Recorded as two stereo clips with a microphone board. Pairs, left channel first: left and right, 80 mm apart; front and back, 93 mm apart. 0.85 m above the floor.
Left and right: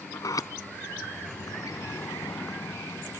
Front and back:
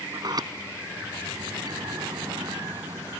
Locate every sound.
0.1 s a sliding door: 135° left